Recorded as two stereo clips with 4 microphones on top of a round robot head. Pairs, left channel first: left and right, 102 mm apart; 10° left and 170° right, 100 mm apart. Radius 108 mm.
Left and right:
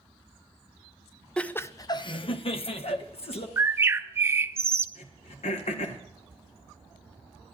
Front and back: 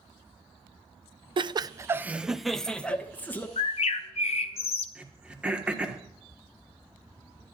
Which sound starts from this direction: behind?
Laughter, at 1.4 s.